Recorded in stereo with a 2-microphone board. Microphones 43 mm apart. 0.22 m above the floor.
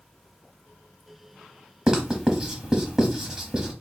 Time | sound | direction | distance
1.9 | writing | 15° right (ahead or behind) | 0.9 m